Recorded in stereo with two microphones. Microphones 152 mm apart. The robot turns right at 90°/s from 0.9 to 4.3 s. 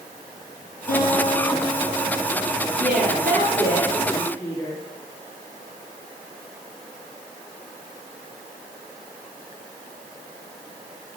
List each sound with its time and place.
0.9 s a guitar: 55° left, 7.5 m; by 2.5 s 155° right, 7.5 m
2.8 s a woman speaking: 125° right, 6.5 m; by 4.8 s 15° left, 6.5 m